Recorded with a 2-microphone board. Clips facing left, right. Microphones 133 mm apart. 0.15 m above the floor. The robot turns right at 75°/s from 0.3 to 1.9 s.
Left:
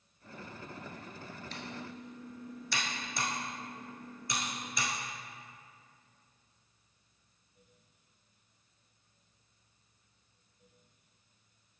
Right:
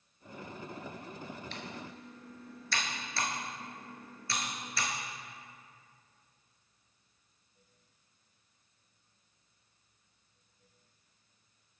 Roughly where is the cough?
No cough in this recording.